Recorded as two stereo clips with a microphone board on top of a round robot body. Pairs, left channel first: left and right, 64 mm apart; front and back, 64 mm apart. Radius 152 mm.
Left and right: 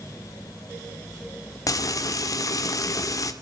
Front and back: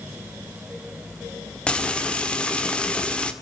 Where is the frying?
70° left, 1.9 m.